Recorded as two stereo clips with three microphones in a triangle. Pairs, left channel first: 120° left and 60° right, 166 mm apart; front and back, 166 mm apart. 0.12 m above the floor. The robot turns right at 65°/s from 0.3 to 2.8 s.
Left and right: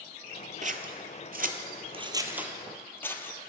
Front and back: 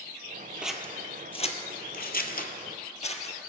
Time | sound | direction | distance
0.6 | scissors | 95° right | 0.8 m